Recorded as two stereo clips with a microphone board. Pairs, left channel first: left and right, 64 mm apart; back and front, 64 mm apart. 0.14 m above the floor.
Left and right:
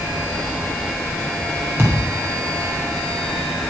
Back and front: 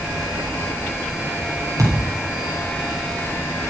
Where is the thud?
35° right, 5.5 m.